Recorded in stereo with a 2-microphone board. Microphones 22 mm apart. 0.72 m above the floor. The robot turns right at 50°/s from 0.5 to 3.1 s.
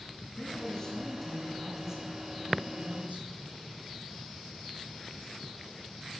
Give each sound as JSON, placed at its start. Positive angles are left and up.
{"t": 0.2, "sound": "a man speaking", "azimuth_deg": 135, "distance_m": 10.0}